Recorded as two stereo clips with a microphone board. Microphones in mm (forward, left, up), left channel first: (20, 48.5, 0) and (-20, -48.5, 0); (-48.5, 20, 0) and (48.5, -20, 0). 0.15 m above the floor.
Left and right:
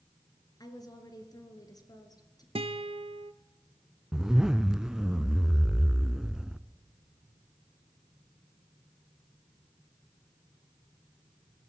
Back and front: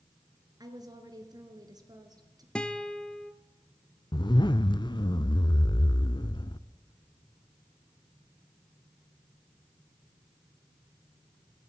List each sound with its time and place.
0.6 s a woman speaking: 20° left, 3 m
2.5 s a guitar: 120° right, 0.9 m
4.1 s a zipper: 165° left, 0.6 m